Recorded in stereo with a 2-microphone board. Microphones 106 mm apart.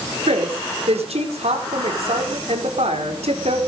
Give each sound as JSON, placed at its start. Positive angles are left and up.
{"t": 0.3, "sound": "a woman speaking", "side_deg": -80, "distance_m": 4.0}